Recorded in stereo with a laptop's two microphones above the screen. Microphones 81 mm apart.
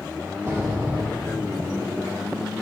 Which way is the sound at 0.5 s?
35° right (ahead or behind).